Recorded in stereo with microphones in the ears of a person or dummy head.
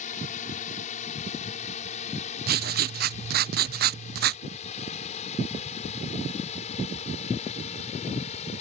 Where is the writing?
50° right (ahead or behind).